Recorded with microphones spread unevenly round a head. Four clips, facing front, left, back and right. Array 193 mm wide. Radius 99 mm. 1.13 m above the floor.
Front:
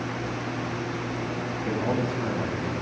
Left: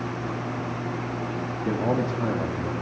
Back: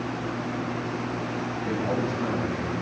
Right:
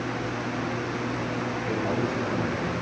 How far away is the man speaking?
About 2.5 m.